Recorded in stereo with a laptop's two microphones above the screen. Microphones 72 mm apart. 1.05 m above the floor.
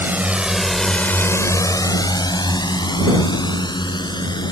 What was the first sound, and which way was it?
A drone, 25° right (ahead or behind).